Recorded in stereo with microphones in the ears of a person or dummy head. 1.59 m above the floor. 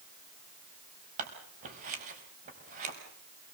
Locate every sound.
1.2 s scissors: 45° right (ahead or behind), 5 m